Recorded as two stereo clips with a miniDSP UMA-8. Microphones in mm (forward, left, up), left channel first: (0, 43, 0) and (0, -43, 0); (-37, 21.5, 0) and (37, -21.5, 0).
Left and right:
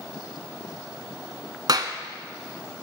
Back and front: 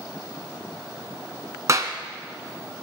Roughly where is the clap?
Right.